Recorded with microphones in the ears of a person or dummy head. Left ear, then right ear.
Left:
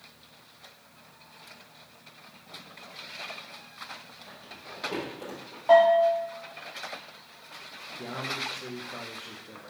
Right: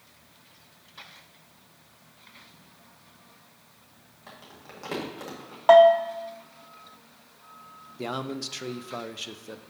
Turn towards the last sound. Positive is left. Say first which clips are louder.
# right 1 dB
turn(degrees=-75)  # may be behind; listen again after turning